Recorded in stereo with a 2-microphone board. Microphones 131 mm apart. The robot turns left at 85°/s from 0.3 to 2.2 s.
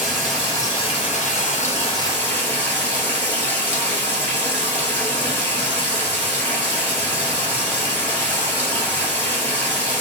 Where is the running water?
175° left, 1.2 m; by 10.0 s 15° left, 1.2 m.